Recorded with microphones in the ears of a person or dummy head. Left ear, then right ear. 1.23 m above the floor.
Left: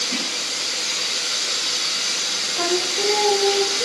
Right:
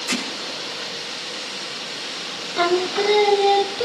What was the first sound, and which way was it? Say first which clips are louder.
Hammering: even; 70° right (ahead or behind).